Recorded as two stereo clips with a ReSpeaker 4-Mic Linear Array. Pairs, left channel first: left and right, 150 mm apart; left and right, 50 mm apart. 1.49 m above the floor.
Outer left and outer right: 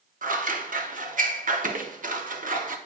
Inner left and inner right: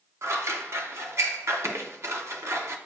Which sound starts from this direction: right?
Scissors, at 0.2 s.